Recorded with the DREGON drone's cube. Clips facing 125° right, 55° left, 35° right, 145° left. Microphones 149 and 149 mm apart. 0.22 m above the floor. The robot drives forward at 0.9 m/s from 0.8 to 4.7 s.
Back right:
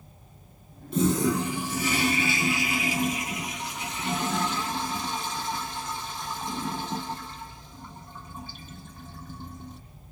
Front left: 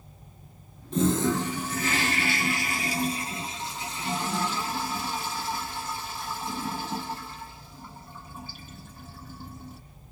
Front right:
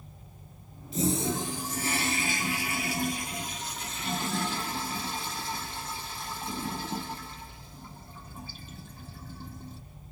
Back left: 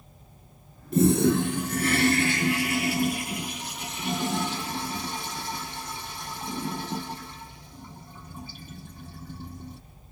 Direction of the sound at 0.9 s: 155° left.